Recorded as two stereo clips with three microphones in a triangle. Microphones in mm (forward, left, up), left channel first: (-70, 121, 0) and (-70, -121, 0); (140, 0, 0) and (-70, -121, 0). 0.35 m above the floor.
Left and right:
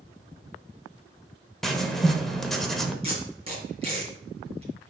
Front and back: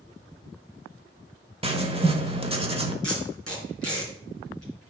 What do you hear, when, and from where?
1.6 s writing: 175° left, 0.9 m
3.0 s tape being pulled: 155° right, 3 m